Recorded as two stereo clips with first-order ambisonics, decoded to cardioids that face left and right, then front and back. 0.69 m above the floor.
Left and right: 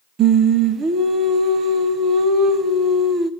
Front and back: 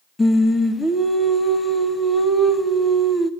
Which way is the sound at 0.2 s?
70° right.